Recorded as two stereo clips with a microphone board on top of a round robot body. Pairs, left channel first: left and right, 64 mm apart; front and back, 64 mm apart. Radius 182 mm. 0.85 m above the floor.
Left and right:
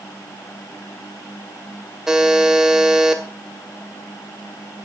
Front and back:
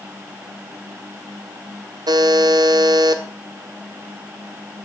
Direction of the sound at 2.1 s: 175° right.